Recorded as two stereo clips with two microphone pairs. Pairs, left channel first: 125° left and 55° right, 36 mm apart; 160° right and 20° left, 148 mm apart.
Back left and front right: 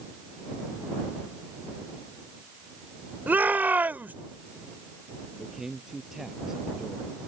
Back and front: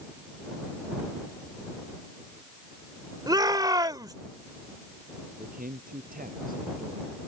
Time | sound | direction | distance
3.3 | a shout | 40° right | ?
5.4 | a man speaking | 20° left | ?